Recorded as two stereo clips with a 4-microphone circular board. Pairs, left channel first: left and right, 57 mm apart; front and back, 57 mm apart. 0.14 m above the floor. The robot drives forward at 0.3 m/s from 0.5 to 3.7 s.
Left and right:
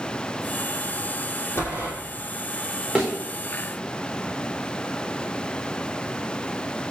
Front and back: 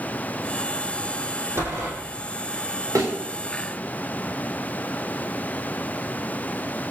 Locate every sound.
1.6 s a door slam: 135° left, 3.5 m; by 1.9 s 140° left, 3.5 m
3.0 s a thud: 165° right, 3.5 m